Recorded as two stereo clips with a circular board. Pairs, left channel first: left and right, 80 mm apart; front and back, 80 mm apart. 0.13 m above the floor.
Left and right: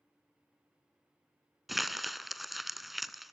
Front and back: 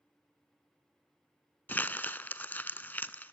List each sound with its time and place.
1.7 s crumpling: 5° right, 0.5 m